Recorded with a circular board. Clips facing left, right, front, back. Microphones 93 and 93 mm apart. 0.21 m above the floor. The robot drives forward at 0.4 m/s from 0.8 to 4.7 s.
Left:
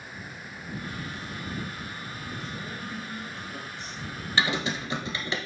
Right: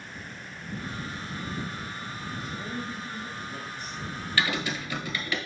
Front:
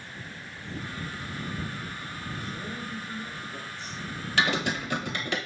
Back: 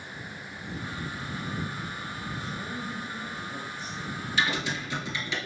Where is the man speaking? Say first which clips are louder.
Right 2 dB, back 1 dB; 165° right, 1.0 m; by 4.3 s 175° right, 1.5 m.